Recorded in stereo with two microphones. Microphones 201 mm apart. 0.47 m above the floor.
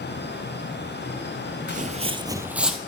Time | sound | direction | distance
1.7 | footsteps | 45° right (ahead or behind) | 0.6 m